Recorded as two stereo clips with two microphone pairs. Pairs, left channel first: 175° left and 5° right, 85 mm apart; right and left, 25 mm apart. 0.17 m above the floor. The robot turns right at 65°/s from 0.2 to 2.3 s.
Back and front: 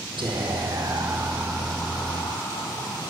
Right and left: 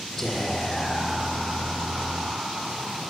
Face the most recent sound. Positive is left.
turn(degrees=125)